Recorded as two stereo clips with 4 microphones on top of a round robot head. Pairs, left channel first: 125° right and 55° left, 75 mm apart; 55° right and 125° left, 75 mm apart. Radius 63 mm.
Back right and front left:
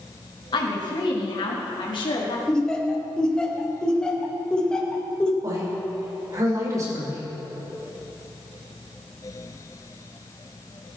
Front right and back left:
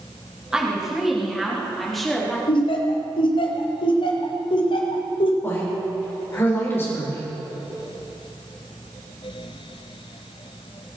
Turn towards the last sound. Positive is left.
turn(degrees=5)